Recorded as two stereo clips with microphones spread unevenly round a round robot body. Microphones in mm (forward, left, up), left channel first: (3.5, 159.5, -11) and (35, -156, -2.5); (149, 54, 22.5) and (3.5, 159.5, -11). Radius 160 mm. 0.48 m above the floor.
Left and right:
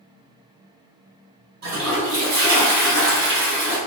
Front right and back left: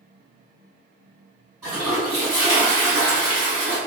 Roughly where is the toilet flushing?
Behind right.